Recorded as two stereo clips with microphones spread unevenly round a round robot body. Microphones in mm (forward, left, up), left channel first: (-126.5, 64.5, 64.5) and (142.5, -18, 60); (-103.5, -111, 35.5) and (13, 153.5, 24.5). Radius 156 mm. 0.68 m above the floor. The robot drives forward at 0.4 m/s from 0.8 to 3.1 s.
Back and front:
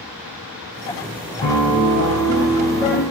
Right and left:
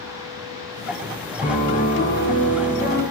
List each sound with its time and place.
1.4 s a piano: straight behind, 0.8 m